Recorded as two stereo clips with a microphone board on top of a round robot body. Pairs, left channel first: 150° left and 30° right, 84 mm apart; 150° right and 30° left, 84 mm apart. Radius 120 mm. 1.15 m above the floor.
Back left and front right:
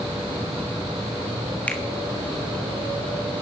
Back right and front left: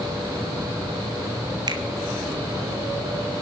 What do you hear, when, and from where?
1.7 s a finger snap: 75° left, 1.4 m